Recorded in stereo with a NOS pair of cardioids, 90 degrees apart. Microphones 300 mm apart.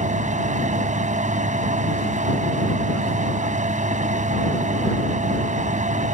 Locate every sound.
0.0 s a fan: 25° right